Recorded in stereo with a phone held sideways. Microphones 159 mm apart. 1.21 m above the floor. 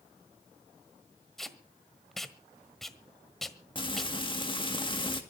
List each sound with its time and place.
1.4 s tape being pulled: centre (ahead or behind), 1.4 m
3.8 s frying: 30° left (ahead or behind), 2 m